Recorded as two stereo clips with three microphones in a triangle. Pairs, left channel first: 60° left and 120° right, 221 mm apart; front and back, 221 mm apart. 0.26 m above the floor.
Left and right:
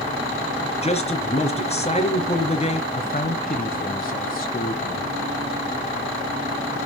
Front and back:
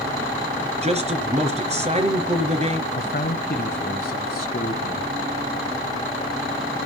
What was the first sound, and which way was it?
A man speaking, 120° left.